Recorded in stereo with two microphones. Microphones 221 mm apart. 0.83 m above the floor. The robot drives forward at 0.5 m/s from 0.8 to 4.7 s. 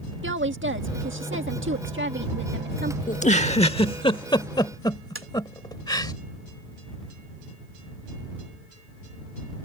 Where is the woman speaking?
60° right (ahead or behind); by 3.0 s 50° right (ahead or behind).